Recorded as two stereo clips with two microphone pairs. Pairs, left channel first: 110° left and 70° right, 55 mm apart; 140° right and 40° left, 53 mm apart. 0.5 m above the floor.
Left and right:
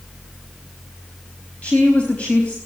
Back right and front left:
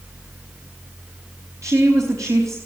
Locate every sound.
1.6 s a woman speaking: 50° left, 4 m